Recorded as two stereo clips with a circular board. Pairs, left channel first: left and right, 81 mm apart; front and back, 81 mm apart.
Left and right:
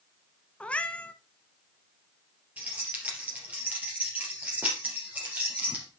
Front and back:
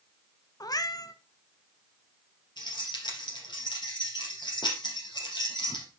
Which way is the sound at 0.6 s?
20° left.